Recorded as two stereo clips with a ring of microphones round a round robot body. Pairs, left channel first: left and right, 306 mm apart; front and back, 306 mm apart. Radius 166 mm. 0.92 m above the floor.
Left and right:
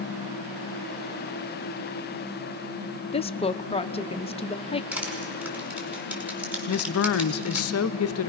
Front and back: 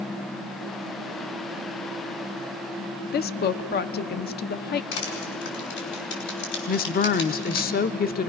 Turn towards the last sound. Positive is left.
turn(degrees=55)